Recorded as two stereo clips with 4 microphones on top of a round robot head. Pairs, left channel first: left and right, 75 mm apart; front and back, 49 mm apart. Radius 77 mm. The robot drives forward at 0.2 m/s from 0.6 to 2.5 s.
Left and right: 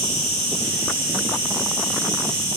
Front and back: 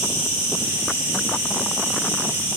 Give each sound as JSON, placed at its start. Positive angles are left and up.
{"t": 0.0, "sound": "an insect", "azimuth_deg": 115, "distance_m": 1.8}